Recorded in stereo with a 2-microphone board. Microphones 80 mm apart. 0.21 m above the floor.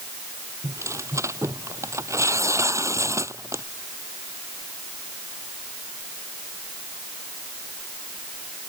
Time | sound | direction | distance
0.6 | tearing paper | 40° right (ahead or behind) | ?